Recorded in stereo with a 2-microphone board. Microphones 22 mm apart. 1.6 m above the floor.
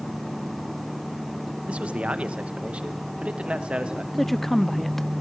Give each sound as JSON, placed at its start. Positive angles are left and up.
{"t": 1.7, "sound": "a man speaking", "side_deg": -85, "distance_m": 1.8}
{"t": 4.1, "sound": "a woman speaking", "side_deg": 10, "distance_m": 0.9}